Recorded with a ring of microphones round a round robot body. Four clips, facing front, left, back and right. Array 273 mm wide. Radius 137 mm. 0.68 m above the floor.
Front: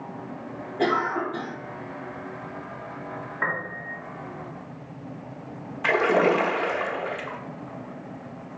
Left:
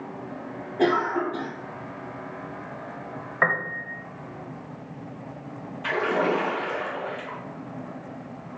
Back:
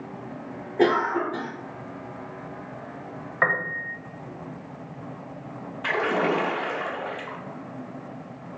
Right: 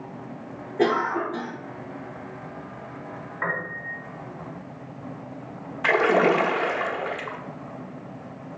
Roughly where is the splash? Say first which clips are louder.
Right 5 dB, front 4 dB; right.